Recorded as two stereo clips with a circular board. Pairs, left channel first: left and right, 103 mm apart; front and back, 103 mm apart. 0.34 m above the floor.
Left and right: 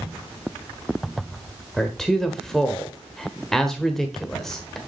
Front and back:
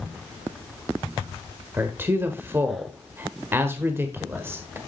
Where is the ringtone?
I don't hear a ringtone.